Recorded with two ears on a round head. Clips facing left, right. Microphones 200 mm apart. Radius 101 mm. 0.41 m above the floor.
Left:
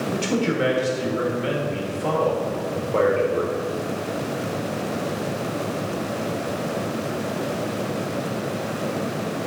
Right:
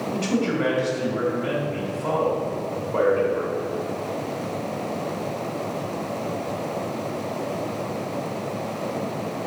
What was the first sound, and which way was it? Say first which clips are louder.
A man speaking: even; 30° left (ahead or behind).